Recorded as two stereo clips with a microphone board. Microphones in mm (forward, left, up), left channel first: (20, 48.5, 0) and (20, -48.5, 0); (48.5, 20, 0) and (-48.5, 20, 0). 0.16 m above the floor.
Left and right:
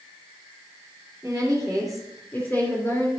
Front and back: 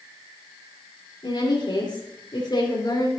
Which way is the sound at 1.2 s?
15° right.